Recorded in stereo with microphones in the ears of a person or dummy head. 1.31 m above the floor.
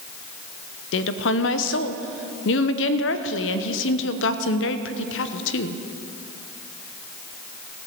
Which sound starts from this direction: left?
A woman speaking, at 0.9 s.